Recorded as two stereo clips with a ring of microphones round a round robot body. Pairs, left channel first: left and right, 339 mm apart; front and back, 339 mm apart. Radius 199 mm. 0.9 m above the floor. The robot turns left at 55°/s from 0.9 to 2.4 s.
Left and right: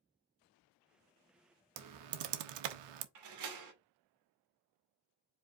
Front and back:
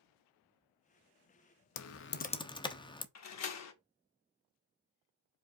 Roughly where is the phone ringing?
No phone ringing in this recording.